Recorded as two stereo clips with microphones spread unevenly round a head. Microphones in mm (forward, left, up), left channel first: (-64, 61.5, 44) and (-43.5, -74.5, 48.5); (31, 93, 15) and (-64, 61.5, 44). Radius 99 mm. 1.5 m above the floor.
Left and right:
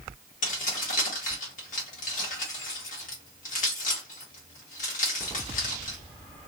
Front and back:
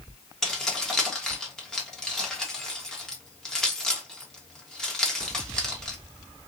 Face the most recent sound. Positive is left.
turn(degrees=115)